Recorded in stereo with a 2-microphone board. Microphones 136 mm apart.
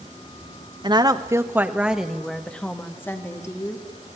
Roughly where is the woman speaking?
Right.